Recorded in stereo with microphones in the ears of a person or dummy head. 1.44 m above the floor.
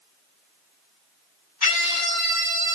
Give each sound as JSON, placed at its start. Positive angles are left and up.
{"t": 1.6, "sound": "a scream", "side_deg": 40, "distance_m": 1.6}